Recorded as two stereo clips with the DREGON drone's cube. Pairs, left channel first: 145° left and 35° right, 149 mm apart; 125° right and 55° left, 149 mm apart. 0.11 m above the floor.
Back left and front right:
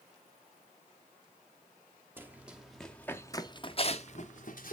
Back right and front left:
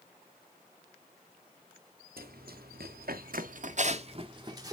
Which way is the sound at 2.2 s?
40° left.